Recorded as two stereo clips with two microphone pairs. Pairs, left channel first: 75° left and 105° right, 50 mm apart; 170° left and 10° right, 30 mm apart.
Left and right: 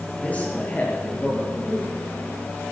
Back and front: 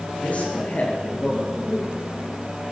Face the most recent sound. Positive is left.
turn(degrees=135)